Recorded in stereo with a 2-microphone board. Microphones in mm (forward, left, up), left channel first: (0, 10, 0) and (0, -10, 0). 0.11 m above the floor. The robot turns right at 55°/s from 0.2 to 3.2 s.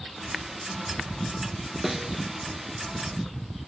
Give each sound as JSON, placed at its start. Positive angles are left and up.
{"t": 1.8, "sound": "a snare drum", "side_deg": -25, "distance_m": 1.3}